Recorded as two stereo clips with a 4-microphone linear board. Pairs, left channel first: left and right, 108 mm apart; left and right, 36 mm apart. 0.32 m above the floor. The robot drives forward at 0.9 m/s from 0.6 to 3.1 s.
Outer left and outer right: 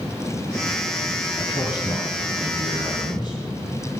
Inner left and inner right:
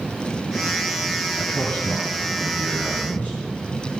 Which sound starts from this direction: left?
A man speaking, at 1.4 s.